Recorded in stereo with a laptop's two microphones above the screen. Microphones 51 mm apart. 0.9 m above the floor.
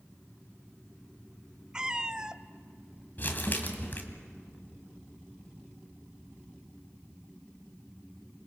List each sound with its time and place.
1.7 s a cat meowing: 15° right (ahead or behind), 0.6 m
3.2 s crumpling: 40° left (ahead or behind), 1.9 m